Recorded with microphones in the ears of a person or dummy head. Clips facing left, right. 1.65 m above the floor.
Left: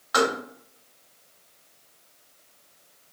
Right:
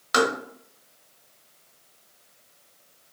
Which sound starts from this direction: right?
Tapping, at 0.1 s.